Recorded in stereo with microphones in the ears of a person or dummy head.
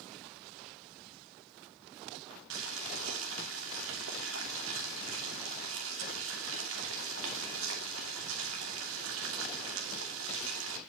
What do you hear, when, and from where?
2.5 s boiling: 80° right, 2.5 m